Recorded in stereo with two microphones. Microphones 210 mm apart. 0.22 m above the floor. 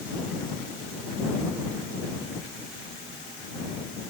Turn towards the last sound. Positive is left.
No sound to turn to.